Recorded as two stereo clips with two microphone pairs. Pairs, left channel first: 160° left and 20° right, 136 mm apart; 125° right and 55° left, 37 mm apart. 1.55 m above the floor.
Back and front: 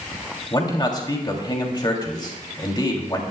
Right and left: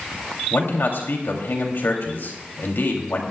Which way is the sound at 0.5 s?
145° right.